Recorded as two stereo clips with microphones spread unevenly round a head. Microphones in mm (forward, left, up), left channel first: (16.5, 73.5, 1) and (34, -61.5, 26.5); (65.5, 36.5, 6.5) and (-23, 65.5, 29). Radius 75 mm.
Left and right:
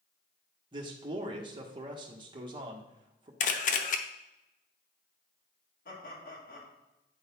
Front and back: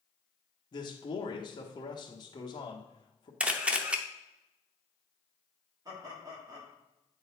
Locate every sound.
0.7 s a man speaking: 25° right, 1.2 m
3.4 s a camera shutter: 110° left, 0.7 m
5.8 s laughter: 110° left, 2.5 m